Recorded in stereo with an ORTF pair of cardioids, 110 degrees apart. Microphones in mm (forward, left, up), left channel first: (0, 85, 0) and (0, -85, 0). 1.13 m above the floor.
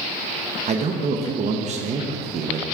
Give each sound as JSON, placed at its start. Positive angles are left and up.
{"t": 0.7, "sound": "a man speaking", "azimuth_deg": -45, "distance_m": 1.1}